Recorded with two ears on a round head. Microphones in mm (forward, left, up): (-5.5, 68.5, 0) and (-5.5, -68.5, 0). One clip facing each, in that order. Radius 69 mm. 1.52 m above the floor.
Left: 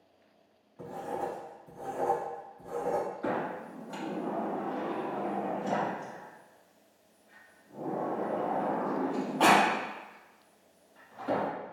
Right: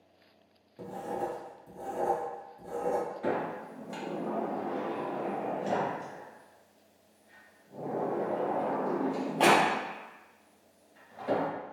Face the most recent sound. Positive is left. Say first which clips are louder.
# right 1 dB
turn(degrees=-25)  # may be behind; listen again after turning